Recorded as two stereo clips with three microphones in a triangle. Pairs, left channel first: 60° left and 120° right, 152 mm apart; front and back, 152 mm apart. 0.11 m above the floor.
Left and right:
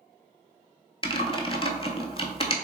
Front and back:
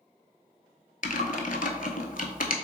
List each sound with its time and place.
1.0 s typing on a keyboard: 10° left, 0.5 m